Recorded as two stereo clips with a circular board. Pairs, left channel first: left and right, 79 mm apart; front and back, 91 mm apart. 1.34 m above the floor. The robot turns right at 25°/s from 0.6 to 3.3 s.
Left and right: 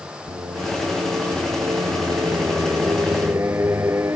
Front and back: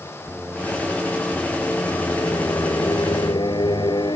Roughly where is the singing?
Right.